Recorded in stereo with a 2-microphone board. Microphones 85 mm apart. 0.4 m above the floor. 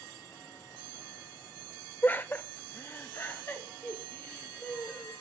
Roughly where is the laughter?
Left.